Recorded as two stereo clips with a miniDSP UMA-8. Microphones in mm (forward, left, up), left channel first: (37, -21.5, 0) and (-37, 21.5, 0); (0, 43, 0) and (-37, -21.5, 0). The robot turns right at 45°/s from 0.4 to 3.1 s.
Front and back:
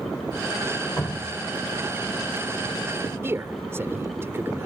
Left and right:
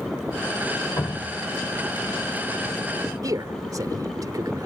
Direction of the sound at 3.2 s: 150° right.